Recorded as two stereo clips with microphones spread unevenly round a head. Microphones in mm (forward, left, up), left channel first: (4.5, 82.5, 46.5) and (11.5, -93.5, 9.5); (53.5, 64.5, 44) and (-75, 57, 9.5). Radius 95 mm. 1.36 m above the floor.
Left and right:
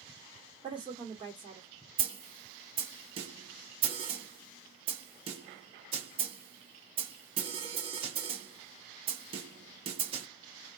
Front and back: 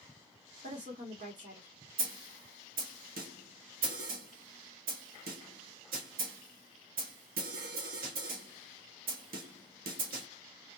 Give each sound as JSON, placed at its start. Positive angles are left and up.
{"t": 0.6, "sound": "a woman speaking", "azimuth_deg": -155, "distance_m": 1.3}
{"t": 2.0, "sound": "a snare drum", "azimuth_deg": -150, "distance_m": 0.9}